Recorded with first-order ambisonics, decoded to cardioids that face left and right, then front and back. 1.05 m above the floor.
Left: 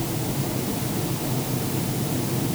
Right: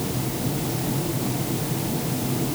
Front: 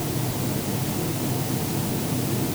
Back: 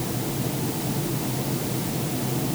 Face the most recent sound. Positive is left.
No sound to turn to.